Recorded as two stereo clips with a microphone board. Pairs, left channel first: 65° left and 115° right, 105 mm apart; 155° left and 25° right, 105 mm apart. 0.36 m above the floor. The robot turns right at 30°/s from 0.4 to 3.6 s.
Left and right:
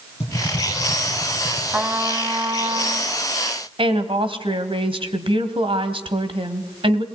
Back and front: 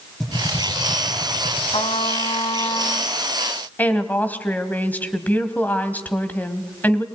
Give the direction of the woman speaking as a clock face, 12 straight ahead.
4 o'clock.